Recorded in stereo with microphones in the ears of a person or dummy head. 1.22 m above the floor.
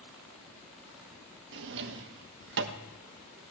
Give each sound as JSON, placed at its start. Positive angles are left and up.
{"t": 1.5, "sound": "a drawer", "side_deg": -65, "distance_m": 1.0}